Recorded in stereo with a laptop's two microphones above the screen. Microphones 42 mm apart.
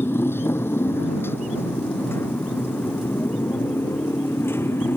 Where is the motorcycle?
80° left; by 5.0 s 90° left.